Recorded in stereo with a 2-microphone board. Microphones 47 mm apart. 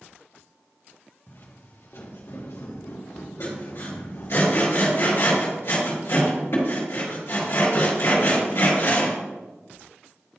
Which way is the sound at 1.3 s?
55° left (ahead or behind).